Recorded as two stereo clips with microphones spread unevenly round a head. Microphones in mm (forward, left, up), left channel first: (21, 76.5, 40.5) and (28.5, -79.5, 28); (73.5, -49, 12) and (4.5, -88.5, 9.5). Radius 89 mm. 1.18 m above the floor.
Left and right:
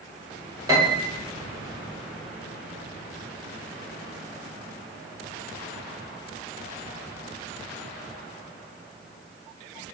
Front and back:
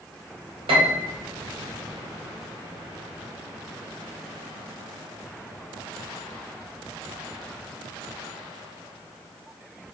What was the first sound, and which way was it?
A piano, 160° right.